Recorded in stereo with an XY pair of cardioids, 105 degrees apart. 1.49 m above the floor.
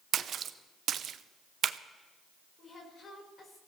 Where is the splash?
55° right, 0.7 m.